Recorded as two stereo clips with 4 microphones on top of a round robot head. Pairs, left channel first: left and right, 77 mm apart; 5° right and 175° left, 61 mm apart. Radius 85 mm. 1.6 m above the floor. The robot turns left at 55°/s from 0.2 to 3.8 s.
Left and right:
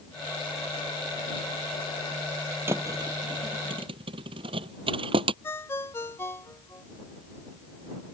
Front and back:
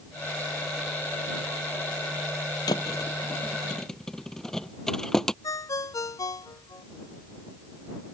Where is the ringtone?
25° left.